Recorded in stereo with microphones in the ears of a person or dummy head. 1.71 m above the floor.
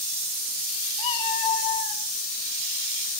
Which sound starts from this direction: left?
A cat meowing, at 1.0 s.